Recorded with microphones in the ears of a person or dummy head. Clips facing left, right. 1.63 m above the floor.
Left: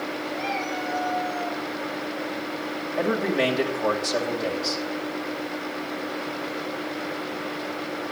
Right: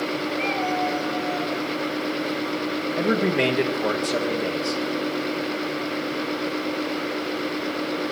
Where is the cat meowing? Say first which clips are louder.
Right 5 dB; 45° right (ahead or behind), 4 m.